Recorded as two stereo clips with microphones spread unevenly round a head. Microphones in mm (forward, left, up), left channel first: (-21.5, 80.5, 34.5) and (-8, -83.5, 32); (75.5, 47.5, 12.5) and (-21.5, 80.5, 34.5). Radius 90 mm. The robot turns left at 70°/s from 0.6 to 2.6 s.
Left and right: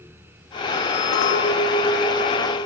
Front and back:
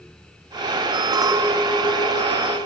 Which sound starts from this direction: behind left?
A clink, at 1.1 s.